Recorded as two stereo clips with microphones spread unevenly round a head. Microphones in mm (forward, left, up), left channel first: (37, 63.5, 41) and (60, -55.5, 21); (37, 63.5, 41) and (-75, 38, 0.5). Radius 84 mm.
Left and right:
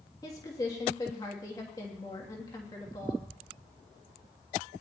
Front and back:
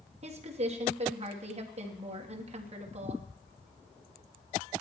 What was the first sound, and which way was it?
A woman speaking, 170° left.